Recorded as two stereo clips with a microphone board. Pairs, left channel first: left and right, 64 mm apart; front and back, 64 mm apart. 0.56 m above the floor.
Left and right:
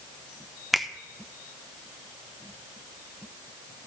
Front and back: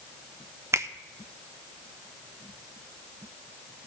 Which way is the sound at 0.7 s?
Straight behind.